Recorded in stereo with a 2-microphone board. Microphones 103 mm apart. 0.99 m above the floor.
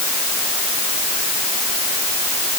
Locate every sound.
Only background noise.